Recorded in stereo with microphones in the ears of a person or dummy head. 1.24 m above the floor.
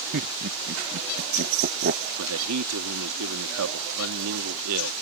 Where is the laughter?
60° right (ahead or behind).